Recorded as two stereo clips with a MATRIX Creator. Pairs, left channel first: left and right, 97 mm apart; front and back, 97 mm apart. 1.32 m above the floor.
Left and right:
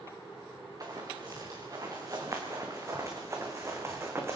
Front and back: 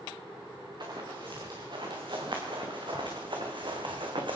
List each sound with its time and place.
0.8 s running footsteps: 140° right, 6 m; by 4.4 s 155° right, 4 m